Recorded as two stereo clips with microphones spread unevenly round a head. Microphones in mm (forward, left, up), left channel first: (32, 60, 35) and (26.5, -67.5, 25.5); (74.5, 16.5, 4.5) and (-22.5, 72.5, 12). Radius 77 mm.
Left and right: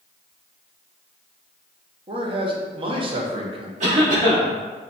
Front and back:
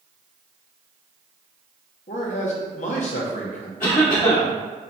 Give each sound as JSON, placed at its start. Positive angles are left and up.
{"t": 2.1, "sound": "a man speaking", "azimuth_deg": -50, "distance_m": 0.9}
{"t": 3.8, "sound": "a cough", "azimuth_deg": -65, "distance_m": 1.6}